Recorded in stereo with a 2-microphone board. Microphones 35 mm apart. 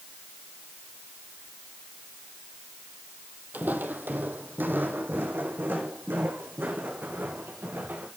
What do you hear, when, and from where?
3.5 s footsteps: 55° right (ahead or behind), 1.3 m; by 8.1 s 70° right (ahead or behind), 3.5 m